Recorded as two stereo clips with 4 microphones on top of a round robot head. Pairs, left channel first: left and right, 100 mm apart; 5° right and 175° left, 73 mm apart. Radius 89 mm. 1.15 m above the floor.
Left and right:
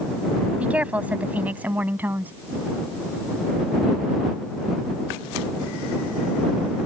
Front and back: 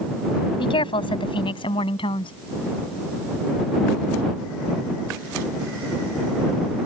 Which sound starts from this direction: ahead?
A woman speaking, at 0.6 s.